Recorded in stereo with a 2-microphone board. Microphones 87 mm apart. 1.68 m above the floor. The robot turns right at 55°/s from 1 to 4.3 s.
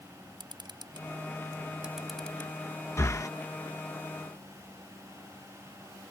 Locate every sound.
0.4 s a camera shutter: 60° right (ahead or behind); by 2.5 s 25° left (ahead or behind)
3.0 s breathing: 35° left (ahead or behind); by 3.3 s 40° left (ahead or behind)